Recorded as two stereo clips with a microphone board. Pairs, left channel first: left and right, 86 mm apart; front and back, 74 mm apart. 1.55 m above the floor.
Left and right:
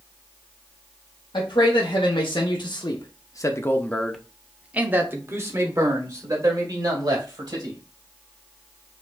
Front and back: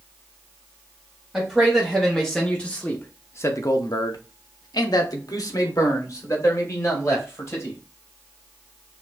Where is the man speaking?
95° left, 1.3 m; by 7.8 s 50° right, 2 m.